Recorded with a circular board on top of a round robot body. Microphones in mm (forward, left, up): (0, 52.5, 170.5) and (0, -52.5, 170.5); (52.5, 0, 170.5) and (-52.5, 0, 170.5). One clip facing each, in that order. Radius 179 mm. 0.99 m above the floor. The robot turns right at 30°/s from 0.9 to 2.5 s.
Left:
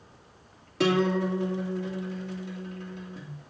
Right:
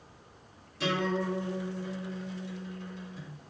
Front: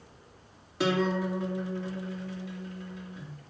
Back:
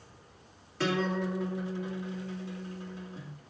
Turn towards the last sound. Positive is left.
turn(degrees=125)